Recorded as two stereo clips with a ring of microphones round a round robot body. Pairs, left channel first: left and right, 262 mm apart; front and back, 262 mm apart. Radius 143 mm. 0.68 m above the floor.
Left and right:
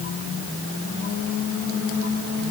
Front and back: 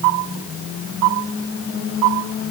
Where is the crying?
I don't hear crying.